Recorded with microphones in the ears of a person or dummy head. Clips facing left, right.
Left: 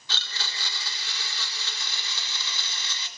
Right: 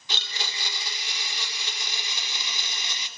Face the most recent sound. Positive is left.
turn(degrees=-20)  # may be behind; listen again after turning